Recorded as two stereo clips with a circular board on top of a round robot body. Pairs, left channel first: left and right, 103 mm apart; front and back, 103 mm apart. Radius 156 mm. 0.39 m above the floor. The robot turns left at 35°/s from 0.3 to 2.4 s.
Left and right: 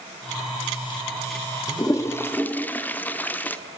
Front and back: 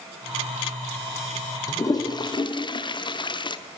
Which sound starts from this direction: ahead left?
A toilet flushing, at 1.7 s.